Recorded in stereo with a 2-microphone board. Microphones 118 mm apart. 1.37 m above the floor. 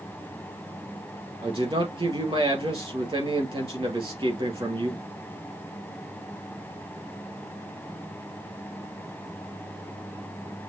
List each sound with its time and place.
1.4 s a man speaking: 45° right (ahead or behind), 2 m